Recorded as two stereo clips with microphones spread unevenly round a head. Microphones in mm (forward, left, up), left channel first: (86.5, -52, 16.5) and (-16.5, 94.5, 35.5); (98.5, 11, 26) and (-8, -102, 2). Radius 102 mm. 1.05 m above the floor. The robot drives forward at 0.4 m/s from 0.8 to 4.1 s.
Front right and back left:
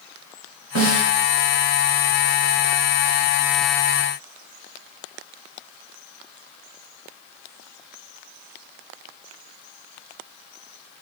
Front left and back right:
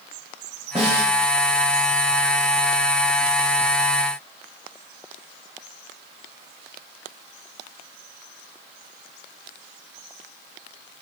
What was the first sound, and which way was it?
A snare drum, 150° left.